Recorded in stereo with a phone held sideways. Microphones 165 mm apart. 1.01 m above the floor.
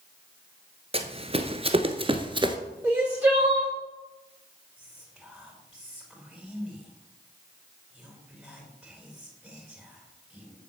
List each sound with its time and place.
0.9 s running footsteps: 35° right (ahead or behind), 1.2 m; by 2.6 s 25° right (ahead or behind), 1.1 m
2.8 s crying: 10° right (ahead or behind), 3.5 m
4.8 s whispering: 5° right (ahead or behind), 4 m